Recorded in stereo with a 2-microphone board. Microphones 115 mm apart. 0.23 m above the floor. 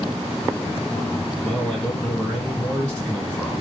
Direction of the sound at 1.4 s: 10° left (ahead or behind).